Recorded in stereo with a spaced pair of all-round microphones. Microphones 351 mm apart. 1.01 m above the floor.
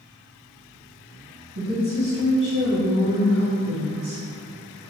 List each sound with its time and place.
1.6 s a woman speaking: 70° right (ahead or behind), 1.8 m